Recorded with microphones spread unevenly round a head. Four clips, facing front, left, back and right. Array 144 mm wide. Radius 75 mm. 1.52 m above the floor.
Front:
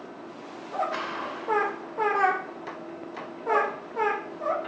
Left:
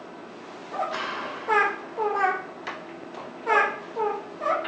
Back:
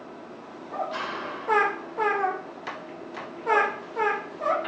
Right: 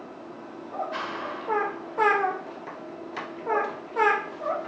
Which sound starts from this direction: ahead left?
A rattle, at 0.9 s.